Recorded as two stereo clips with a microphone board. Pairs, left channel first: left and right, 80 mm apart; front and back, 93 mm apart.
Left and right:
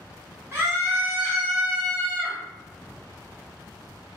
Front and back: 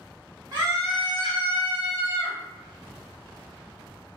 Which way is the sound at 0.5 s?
140° right.